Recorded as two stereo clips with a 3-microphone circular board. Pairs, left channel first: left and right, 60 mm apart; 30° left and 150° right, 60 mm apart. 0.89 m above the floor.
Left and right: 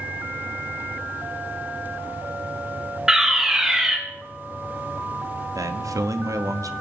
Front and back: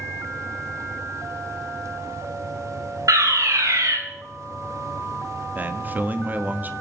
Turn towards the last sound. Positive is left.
turn(degrees=-90)